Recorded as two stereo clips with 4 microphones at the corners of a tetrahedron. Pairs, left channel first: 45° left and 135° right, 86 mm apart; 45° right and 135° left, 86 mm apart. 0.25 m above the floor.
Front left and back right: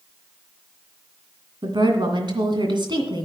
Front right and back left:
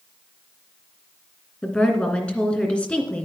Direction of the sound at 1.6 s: 120° right.